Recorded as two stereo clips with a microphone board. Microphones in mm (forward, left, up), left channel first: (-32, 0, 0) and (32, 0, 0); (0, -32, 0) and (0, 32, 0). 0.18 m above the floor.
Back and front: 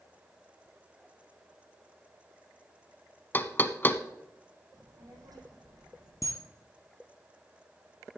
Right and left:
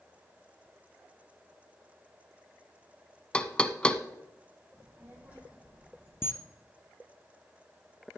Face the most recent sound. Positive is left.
turn(degrees=-145)